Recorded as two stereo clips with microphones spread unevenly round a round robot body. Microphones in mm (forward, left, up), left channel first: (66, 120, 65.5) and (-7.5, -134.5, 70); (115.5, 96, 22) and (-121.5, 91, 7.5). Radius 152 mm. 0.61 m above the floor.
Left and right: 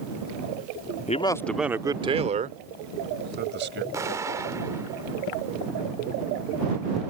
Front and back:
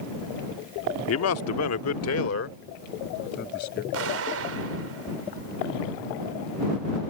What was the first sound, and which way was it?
A man speaking, 15° left.